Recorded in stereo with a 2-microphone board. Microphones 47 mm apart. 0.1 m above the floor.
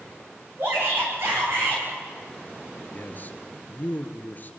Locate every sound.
0.6 s a shout: 60° right (ahead or behind), 9.5 m
2.9 s a man speaking: 40° left (ahead or behind), 1.6 m